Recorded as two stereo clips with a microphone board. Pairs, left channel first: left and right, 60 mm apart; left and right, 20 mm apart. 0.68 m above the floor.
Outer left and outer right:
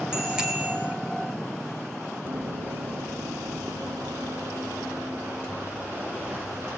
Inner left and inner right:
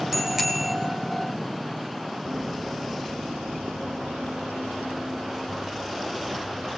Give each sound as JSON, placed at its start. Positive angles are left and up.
{"t": 0.1, "sound": "a bicycle bell", "side_deg": -10, "distance_m": 4.0}
{"t": 2.2, "sound": "running footsteps", "side_deg": -75, "distance_m": 3.0}